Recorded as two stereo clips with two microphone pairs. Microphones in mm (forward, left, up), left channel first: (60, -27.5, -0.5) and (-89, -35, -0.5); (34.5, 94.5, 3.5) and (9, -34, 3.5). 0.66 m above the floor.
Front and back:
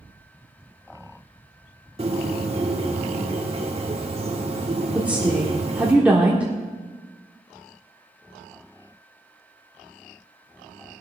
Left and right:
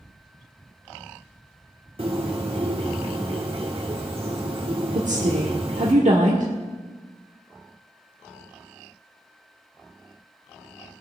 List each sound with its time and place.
2.0 s a bird: 135° right, 1.7 m
4.9 s a woman speaking: 100° right, 1.3 m